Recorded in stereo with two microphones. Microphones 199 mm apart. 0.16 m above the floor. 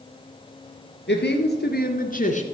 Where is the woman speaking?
60° left (ahead or behind), 3 m; by 2.4 s 35° left (ahead or behind), 1.4 m.